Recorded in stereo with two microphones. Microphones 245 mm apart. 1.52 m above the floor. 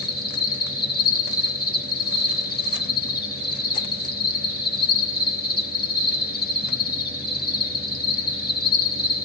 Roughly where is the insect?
Left.